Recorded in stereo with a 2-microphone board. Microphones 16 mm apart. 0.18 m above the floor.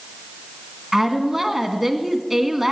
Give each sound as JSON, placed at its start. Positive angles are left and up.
{"t": 0.9, "sound": "a woman speaking", "side_deg": -10, "distance_m": 1.9}